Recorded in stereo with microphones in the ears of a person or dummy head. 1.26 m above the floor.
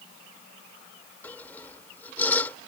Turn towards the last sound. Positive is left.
turn(degrees=20)  # may be behind; listen again after turning